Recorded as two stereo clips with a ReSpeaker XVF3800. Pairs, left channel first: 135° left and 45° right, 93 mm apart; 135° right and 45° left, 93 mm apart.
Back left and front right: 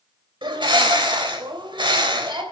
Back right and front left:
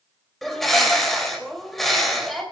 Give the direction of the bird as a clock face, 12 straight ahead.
2 o'clock.